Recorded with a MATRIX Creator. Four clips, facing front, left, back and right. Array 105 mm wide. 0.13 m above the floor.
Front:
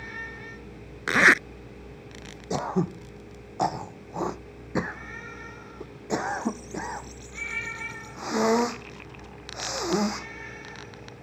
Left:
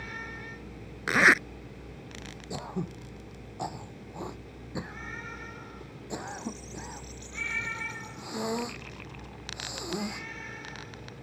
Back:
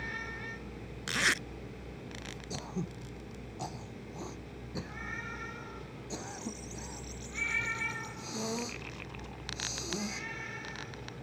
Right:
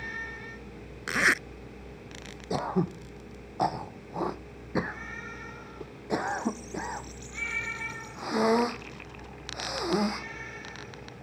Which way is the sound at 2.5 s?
35° right.